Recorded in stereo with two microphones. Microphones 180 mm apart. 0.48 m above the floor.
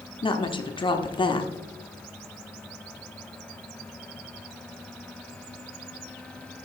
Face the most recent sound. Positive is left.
turn(degrees=25)  # may be behind; listen again after turning